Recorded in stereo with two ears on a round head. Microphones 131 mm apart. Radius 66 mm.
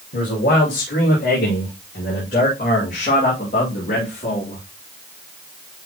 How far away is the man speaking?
About 6.5 m.